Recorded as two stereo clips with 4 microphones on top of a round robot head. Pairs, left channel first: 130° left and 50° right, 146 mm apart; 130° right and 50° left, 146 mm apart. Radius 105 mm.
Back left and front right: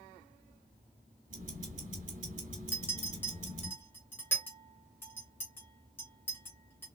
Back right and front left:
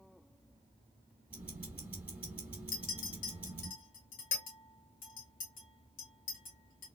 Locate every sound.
1.3 s ticking: 25° right, 1.7 m
2.7 s a clink: 155° right, 1.6 m